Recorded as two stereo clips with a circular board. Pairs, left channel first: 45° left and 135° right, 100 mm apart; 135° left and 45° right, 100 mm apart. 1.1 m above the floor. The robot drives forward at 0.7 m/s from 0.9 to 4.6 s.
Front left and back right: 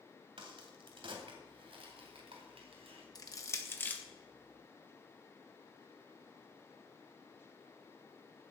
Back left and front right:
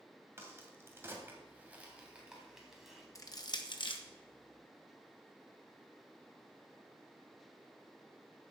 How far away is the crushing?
About 1.2 m.